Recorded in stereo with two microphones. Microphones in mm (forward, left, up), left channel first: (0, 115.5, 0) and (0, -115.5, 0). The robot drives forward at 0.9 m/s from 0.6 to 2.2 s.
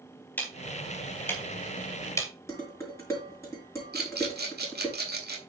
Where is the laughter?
I don't hear laughter.